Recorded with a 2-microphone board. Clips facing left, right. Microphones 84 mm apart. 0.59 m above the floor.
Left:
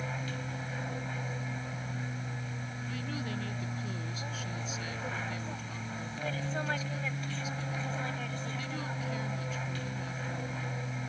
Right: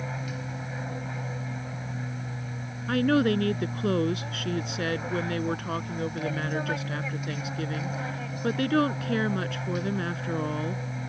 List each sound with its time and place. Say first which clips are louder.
0.0 s an aircraft: right 3 dB; 10° right (ahead or behind)
2.9 s a woman speaking: right 17 dB; 70° right (ahead or behind)